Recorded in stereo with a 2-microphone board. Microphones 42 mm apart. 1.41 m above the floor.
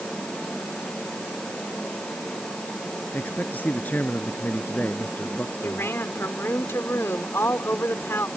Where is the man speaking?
40° left (ahead or behind); by 5.9 s 45° left (ahead or behind).